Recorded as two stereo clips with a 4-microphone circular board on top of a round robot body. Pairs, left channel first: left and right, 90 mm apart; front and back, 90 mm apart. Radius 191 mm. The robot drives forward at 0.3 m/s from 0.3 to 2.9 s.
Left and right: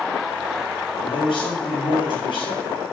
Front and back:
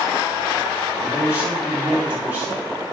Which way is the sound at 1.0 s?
105° left.